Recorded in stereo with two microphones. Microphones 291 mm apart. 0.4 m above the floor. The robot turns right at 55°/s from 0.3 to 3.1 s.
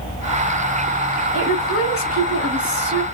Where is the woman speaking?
125° right, 2 m; by 3.0 s 30° right, 2 m.